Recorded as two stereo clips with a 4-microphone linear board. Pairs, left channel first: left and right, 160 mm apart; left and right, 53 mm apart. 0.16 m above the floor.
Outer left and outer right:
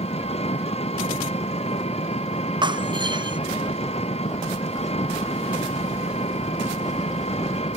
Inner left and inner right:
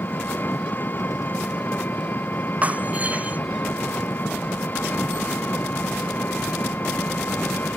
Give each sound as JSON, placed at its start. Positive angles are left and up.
{"t": 0.0, "sound": "an engine running", "side_deg": 40}
{"t": 2.6, "sound": "breaking glass", "side_deg": -30}